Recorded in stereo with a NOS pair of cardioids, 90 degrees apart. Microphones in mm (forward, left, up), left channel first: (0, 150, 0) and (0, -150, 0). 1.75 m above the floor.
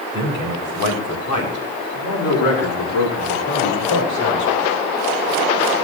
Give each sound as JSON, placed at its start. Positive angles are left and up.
{"t": 0.1, "sound": "a man speaking", "azimuth_deg": 70, "distance_m": 5.5}